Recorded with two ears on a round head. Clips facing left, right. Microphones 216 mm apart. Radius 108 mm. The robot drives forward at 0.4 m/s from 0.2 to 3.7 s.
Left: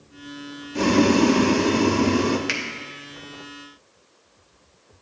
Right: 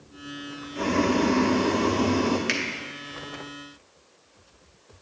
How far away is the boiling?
About 0.5 m.